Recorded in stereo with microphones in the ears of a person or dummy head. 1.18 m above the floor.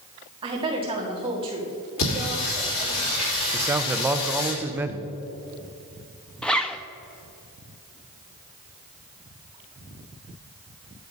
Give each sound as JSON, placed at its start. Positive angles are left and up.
{"t": 0.4, "sound": "a woman speaking", "side_deg": -25, "distance_m": 2.0}
{"t": 2.0, "sound": "singing", "side_deg": 75, "distance_m": 3.5}
{"t": 3.5, "sound": "a man speaking", "side_deg": -10, "distance_m": 0.6}
{"t": 6.4, "sound": "a zipper", "side_deg": 5, "distance_m": 0.6}